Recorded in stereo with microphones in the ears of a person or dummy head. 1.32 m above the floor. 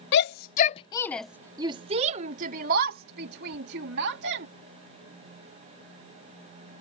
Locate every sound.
0.1 s a shout: 65° left (ahead or behind); by 4.5 s 60° right (ahead or behind)